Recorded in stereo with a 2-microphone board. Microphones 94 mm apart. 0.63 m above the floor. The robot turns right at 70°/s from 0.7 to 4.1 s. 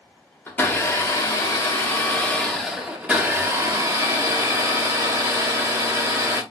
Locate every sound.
0.5 s a blender: 45° left, 1.3 m; by 6.4 s 75° right, 1.3 m